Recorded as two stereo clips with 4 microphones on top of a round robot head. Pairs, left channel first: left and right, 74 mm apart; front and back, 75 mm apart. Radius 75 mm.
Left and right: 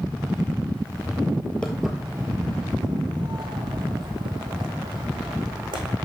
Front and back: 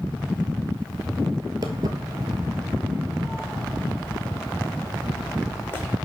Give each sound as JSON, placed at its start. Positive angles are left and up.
{"t": 1.6, "sound": "footsteps", "azimuth_deg": 170, "distance_m": 0.8}